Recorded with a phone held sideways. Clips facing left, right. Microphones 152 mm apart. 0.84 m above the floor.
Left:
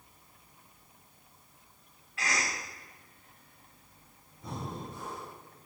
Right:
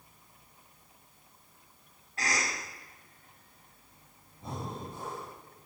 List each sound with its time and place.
2.2 s a cough: 45° right (ahead or behind), 2 m
4.4 s breathing: 30° right (ahead or behind), 3 m